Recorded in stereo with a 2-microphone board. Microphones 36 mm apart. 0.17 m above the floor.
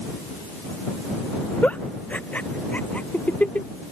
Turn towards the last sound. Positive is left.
turn(degrees=45)  # may be behind; listen again after turning